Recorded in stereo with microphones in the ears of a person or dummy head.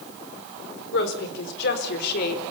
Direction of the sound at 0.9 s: 75° left (ahead or behind).